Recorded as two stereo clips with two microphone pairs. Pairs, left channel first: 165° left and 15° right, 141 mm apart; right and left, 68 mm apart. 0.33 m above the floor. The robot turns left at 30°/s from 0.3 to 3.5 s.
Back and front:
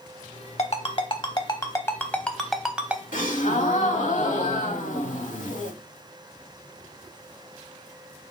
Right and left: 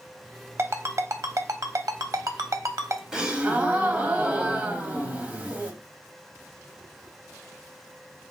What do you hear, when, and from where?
0.6 s a ringtone: 130° left, 0.7 m; by 3.0 s 60° left, 0.7 m
3.1 s a gasp: 165° left, 0.7 m; by 5.7 s 155° left, 0.7 m